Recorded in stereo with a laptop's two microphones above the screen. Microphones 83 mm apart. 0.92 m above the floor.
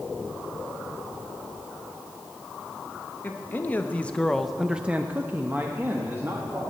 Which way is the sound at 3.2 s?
25° left (ahead or behind).